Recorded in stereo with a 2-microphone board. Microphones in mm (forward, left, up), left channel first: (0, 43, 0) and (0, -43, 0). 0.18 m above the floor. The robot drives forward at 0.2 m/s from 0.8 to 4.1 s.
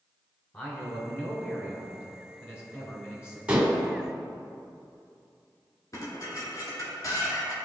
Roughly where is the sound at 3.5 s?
Centre.